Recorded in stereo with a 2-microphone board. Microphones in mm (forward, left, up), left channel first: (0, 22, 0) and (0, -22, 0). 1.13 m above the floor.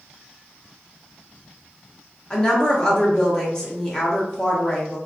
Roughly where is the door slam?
I don't hear a door slam.